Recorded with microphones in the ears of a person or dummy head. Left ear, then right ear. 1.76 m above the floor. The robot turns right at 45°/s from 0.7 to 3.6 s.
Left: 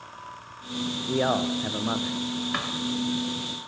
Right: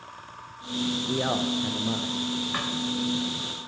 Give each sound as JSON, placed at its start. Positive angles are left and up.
{"t": 1.1, "sound": "a man speaking", "azimuth_deg": 15, "distance_m": 0.6}
{"t": 2.5, "sound": "a drawer", "side_deg": 20, "distance_m": 2.5}